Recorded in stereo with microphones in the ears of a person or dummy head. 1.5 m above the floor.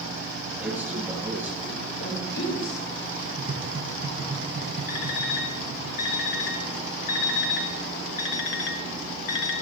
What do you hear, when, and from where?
0.6 s a man speaking: 5° right (ahead or behind), 7 m
2.0 s a woman speaking: 90° left, 5 m
3.4 s tapping: 50° right (ahead or behind), 1.2 m
4.9 s an alarm clock: 45° left (ahead or behind), 1.3 m